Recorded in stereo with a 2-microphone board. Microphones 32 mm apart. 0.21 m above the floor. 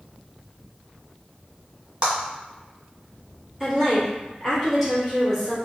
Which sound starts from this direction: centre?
A woman speaking, at 3.6 s.